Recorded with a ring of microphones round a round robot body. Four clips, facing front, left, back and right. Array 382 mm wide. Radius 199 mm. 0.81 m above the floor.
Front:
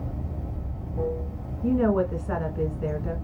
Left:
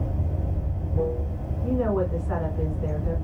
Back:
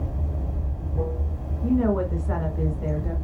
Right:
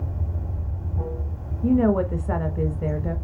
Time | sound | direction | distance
0.0 | running water | 120° left | 2.5 m
1.6 | a woman speaking | 80° right | 1.0 m